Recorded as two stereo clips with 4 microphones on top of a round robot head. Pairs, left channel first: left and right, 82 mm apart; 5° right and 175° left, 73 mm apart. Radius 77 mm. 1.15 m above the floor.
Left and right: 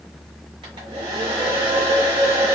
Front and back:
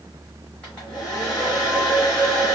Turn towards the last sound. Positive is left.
turn(degrees=-85)